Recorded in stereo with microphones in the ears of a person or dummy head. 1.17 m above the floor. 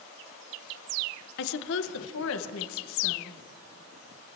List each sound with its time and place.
1.4 s a woman speaking: 55° left (ahead or behind), 1.0 m; by 3.4 s 70° left (ahead or behind), 1.9 m